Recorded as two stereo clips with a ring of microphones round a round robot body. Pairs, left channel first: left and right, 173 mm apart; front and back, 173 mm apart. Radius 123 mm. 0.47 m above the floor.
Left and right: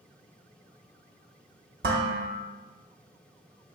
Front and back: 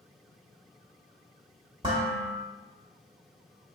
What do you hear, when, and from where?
1.8 s dishes clattering: 115° right, 0.8 m